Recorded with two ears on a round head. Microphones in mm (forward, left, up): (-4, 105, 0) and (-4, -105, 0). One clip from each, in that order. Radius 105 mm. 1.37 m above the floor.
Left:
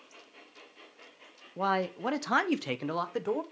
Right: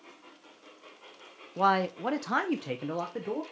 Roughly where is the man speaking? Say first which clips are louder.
Right 4 dB; centre.